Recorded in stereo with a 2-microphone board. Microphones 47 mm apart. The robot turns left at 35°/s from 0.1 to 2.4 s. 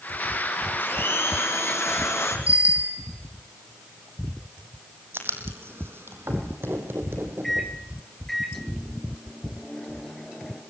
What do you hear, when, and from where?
0.8 s a blender: 135° left, 5 m; by 2.4 s 80° left, 5 m
2.5 s a bicycle bell: 30° right (ahead or behind), 4 m
5.1 s writing: 55° right (ahead or behind), 3.5 m
7.4 s a microwave: 5° left (ahead or behind), 2.5 m